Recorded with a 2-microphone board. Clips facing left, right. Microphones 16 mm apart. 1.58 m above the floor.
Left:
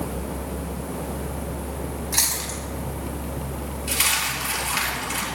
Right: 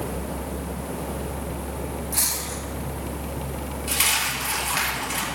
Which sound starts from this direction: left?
Chewing, at 2.1 s.